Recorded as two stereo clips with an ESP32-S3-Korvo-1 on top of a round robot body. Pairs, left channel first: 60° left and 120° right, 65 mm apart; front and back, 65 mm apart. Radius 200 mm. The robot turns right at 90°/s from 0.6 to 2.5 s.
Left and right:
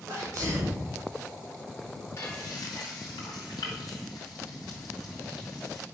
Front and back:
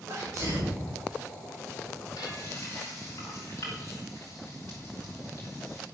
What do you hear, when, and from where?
0.1 s a sneeze: 150° right, 5 m; by 0.8 s 130° right, 5 m
2.2 s frying: 10° left, 2.5 m; by 5.8 s 45° left, 2.5 m